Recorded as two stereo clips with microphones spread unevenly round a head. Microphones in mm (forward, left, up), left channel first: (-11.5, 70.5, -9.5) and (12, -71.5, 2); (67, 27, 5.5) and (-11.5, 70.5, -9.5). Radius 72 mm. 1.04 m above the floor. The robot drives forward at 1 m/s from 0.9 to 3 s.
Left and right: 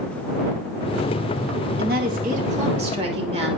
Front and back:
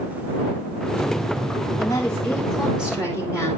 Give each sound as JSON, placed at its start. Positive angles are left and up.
{"t": 1.8, "sound": "a woman speaking", "azimuth_deg": -95, "distance_m": 1.5}